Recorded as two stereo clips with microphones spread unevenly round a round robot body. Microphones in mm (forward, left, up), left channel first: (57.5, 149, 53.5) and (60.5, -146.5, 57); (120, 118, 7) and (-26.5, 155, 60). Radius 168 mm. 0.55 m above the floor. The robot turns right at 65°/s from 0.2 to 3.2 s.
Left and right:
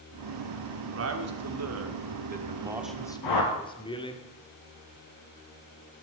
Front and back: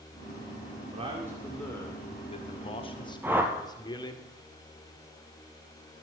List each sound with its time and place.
0.9 s a man speaking: 125° right, 2.0 m; by 4.2 s 20° left, 2.0 m
3.2 s a whoosh: 90° left, 2.5 m